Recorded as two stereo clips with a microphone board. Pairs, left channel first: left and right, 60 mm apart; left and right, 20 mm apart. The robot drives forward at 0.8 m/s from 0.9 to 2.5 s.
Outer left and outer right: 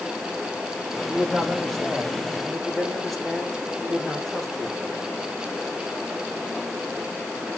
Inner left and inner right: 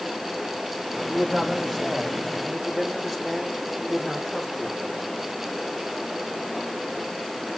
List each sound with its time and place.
1.1 s a man speaking: 10° left (ahead or behind), 6 m; by 4.8 s 5° left (ahead or behind), 7 m